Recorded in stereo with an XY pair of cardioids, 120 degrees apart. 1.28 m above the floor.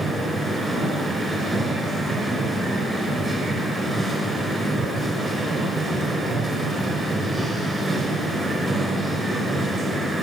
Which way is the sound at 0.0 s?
10° right.